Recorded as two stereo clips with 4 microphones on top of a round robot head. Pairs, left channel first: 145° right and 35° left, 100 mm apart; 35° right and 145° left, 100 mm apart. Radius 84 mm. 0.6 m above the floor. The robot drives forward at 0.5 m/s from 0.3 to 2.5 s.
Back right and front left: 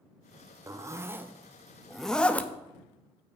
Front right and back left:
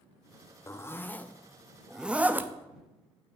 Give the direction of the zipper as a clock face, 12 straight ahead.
12 o'clock.